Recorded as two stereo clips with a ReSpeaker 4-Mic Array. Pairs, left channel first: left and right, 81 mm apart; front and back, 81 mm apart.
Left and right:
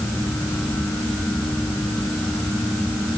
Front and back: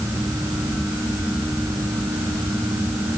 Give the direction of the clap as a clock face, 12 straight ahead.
I don't hear a clap.